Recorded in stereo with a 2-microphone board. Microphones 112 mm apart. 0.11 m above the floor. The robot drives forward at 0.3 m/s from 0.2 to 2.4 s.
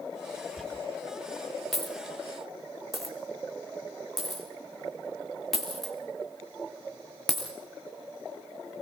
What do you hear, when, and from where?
0.6 s a dropped coin: 5° left (ahead or behind), 5 m